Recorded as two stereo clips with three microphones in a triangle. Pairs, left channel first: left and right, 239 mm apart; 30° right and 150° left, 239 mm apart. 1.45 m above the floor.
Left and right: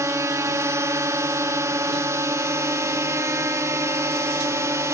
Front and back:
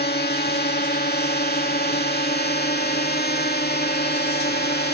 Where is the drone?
20° right.